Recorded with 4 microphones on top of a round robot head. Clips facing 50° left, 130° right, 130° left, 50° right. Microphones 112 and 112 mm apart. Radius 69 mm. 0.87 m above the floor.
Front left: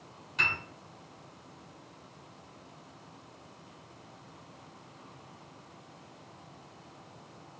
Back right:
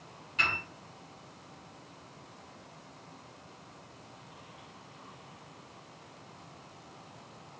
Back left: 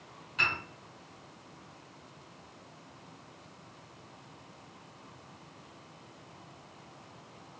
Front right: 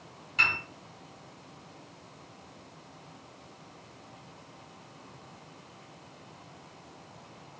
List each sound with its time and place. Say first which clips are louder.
0.4 s a piano: back right 1 dB, front right 2 dB; 5° left, 1.8 m